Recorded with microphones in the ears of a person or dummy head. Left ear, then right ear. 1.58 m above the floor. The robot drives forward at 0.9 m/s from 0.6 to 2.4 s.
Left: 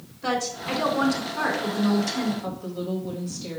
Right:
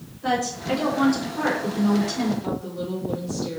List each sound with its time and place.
0.2 s a woman speaking: 60° left (ahead or behind), 4 m; by 2.3 s 80° left, 3.5 m
2.4 s a woman speaking: 60° left (ahead or behind), 3 m